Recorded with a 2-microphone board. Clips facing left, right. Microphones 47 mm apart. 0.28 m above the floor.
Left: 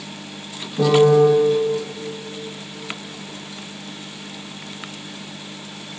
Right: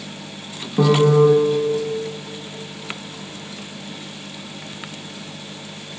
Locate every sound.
0.8 s a piano: 55° right (ahead or behind), 1.7 m